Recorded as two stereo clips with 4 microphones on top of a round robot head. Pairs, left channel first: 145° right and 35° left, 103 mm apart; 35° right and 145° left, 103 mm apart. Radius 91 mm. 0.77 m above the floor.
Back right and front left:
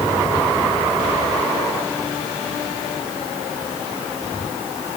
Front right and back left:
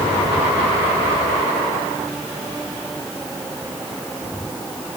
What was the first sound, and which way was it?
Only background noise.